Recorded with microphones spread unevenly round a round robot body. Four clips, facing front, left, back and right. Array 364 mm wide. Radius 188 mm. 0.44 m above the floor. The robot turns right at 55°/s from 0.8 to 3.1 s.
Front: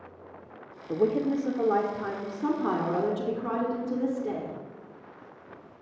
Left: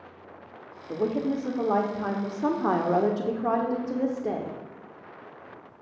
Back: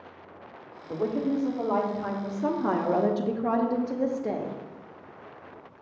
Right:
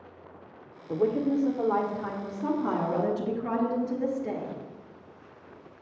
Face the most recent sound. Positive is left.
turn(degrees=115)